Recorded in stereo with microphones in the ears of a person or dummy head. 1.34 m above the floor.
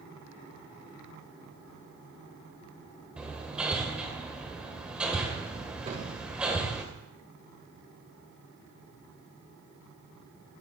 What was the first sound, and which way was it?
Hammering, 5° right (ahead or behind).